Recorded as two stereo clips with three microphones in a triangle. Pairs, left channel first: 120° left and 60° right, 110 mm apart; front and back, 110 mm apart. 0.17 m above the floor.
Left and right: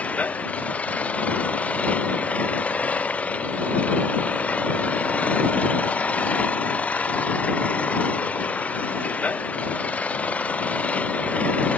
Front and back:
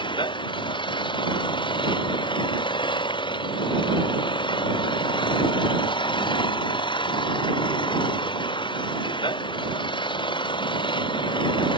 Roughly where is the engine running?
Ahead left.